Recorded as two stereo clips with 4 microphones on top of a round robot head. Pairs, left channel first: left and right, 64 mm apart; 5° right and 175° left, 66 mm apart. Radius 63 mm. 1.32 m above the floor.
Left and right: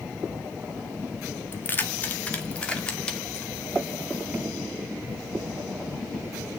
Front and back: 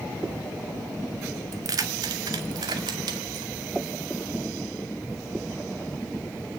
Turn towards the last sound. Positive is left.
turn(degrees=165)